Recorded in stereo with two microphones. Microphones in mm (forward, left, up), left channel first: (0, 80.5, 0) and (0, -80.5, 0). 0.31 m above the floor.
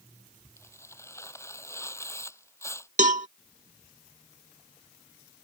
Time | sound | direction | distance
0.6 | tearing paper | 15° left (ahead or behind) | ?
3.0 | a cowbell | 50° right (ahead or behind) | ?